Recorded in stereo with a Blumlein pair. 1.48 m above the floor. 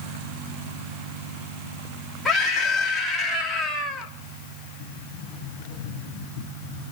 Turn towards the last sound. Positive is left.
turn(degrees=45)